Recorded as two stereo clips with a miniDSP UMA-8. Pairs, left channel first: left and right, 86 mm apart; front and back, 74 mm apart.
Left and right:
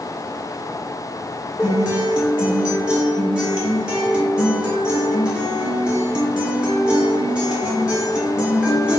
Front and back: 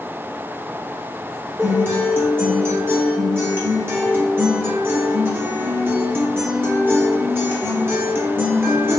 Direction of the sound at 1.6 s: 160° right.